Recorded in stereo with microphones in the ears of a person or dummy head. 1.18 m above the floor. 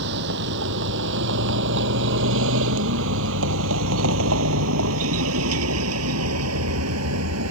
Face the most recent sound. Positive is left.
turn(degrees=-80)